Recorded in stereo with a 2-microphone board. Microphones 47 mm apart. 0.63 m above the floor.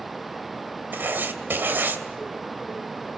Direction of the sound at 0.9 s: 45° right (ahead or behind).